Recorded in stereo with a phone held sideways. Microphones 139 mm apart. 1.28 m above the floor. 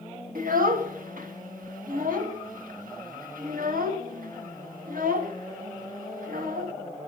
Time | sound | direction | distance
0.3 | a child speaking | 80° right | 1.1 m